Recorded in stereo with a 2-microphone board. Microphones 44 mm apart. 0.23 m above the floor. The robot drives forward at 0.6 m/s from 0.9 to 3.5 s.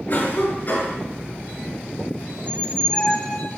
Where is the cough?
45° left (ahead or behind), 4 m.